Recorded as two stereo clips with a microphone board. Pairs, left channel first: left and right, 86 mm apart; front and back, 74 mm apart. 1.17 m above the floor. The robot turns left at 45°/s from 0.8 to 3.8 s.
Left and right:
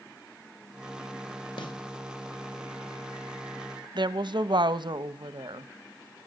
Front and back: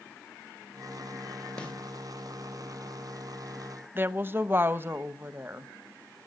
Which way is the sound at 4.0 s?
120° right.